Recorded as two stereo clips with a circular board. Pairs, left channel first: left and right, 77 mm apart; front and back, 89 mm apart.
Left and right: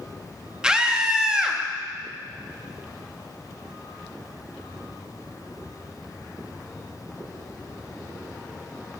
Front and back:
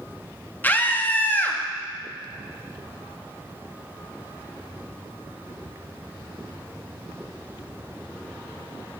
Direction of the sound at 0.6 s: 25° right.